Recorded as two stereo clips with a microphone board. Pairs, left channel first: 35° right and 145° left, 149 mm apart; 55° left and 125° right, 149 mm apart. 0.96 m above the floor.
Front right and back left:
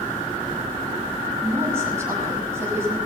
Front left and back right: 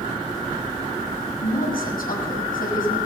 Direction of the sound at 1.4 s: 75° left.